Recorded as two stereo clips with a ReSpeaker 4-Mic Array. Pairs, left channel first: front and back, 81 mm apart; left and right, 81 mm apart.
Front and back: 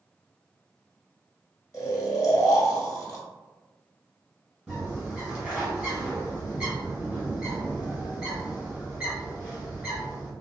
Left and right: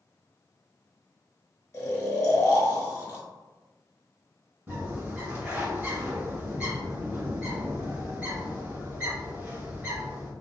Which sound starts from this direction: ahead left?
Snoring, at 1.7 s.